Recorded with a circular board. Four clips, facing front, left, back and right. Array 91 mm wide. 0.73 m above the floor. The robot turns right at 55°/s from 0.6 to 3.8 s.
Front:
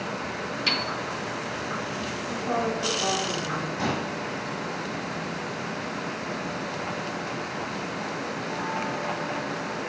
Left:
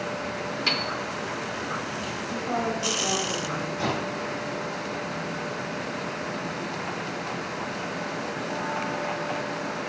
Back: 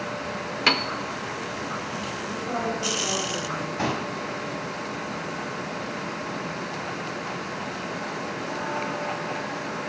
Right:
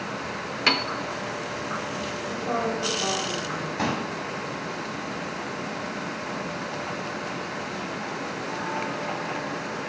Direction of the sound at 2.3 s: 80° right.